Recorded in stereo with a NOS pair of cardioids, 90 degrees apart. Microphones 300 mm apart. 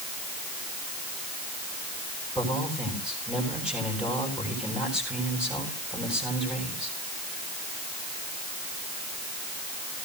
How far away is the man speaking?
About 8.5 m.